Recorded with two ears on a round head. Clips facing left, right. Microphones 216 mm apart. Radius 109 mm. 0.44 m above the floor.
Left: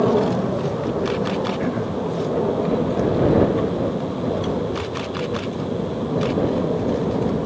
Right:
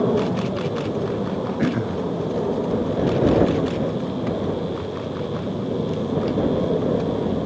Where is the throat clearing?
25° right (ahead or behind).